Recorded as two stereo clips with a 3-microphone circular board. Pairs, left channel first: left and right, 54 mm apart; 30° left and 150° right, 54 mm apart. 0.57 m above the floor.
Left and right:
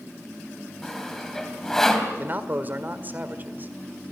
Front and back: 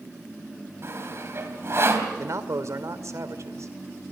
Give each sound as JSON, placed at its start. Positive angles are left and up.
{"t": 0.8, "sound": "sawing", "azimuth_deg": 170, "distance_m": 3.0}
{"t": 2.2, "sound": "a man speaking", "azimuth_deg": -140, "distance_m": 2.0}